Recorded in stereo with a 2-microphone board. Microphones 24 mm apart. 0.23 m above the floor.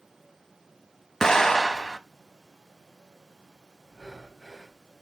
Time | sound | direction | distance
1.2 | an explosion | 25° left (ahead or behind) | 0.7 m
3.9 | breathing | 5° right (ahead or behind) | 0.7 m